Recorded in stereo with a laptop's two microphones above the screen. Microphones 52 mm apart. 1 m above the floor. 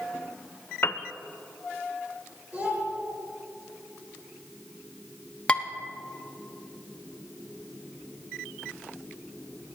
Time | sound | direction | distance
0.8 | a piano | 45° left (ahead or behind) | 0.5 m
2.5 | a child speaking | 30° right (ahead or behind) | 3.5 m
5.5 | dishes clattering | 20° left (ahead or behind) | 1.0 m